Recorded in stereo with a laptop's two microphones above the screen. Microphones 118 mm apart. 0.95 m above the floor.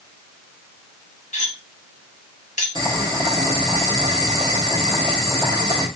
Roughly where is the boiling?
Right.